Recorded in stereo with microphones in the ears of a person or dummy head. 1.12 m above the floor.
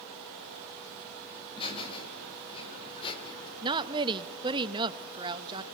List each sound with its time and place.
1.4 s laughter: 30° left (ahead or behind), 7 m
3.6 s a woman speaking: 25° right (ahead or behind), 1.0 m